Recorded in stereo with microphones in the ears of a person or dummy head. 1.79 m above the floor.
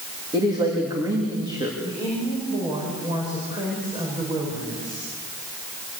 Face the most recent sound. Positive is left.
turn(degrees=-20)  # may be behind; listen again after turning